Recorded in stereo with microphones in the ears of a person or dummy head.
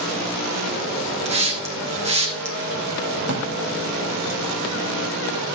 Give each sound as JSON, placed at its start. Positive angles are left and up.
{"t": 1.2, "sound": "a hiss", "side_deg": -40, "distance_m": 1.6}
{"t": 3.2, "sound": "a drawer", "side_deg": -55, "distance_m": 3.5}